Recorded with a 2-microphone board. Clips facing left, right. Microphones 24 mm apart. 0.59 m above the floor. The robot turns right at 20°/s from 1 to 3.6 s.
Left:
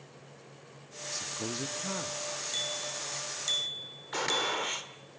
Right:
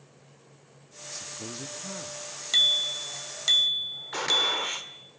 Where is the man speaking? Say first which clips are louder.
Left 3 dB; 20° left (ahead or behind), 0.7 m; by 2.2 s 25° left (ahead or behind), 0.7 m.